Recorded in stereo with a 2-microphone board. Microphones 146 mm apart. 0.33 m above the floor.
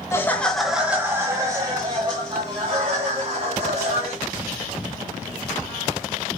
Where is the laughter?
20° left (ahead or behind), 1.0 m; by 4.2 s 45° right (ahead or behind), 3.5 m.